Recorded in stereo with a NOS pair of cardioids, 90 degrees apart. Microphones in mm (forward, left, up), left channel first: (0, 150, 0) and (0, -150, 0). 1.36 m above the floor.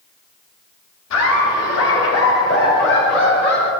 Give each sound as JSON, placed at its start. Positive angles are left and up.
{"t": 1.1, "sound": "laughter", "azimuth_deg": 60, "distance_m": 3.5}